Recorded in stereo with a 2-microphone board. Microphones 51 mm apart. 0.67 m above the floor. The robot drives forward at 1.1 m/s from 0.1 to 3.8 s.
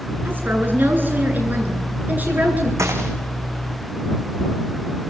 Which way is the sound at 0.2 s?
45° right (ahead or behind).